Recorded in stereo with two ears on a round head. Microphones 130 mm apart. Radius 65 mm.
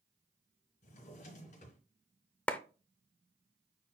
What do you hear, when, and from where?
0.8 s a drawer: 60° left (ahead or behind), 3.5 m
2.5 s a clap: 10° left (ahead or behind), 0.7 m